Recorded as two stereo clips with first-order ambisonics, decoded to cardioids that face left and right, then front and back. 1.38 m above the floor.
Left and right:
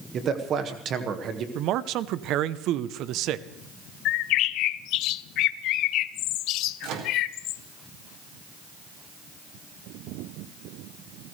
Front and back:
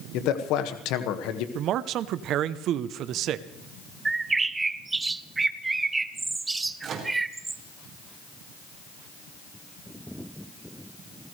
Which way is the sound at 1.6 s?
135° right.